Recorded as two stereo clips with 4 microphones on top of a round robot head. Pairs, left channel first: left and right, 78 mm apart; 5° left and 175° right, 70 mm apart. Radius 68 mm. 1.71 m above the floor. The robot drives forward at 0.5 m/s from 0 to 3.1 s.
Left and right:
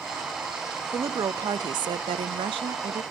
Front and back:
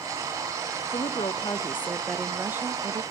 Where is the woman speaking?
35° right, 0.8 m; by 3.0 s 130° right, 0.6 m.